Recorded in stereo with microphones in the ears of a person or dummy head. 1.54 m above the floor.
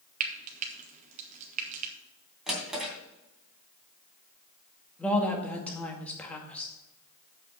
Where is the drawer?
5° right (ahead or behind), 2.5 m.